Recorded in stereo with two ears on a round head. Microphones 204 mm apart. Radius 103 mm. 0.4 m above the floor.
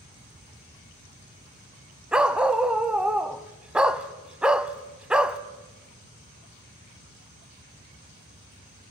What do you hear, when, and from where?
2.1 s a dog barking: 5° right (ahead or behind), 0.6 m